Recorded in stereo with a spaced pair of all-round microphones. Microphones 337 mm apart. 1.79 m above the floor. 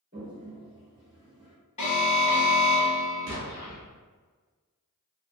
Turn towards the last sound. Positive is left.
turn(degrees=-45)  # may be behind; listen again after turning